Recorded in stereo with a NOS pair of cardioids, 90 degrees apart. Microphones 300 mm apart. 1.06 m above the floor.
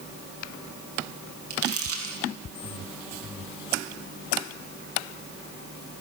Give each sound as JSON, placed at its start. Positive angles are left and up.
{"t": 1.5, "sound": "crumpling", "azimuth_deg": -50, "distance_m": 8.0}